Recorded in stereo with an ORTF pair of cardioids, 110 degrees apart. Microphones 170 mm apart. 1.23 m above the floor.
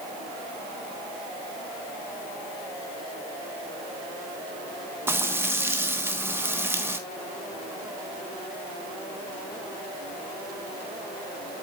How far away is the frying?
About 1.4 m.